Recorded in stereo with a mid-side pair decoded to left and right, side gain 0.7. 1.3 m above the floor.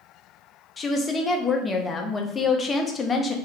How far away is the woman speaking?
About 0.6 m.